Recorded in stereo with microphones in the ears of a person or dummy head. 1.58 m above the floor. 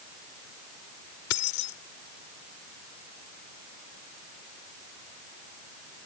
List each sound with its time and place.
1.3 s keys jangling: 70° left (ahead or behind)